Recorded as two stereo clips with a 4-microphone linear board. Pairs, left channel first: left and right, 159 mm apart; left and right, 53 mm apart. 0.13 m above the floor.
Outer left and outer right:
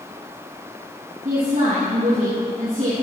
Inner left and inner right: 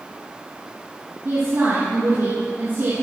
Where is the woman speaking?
50° right (ahead or behind), 4.5 m.